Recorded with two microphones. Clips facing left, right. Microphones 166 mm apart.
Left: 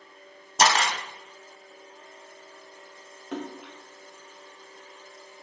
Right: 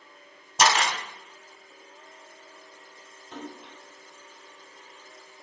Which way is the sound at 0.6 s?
35° left (ahead or behind).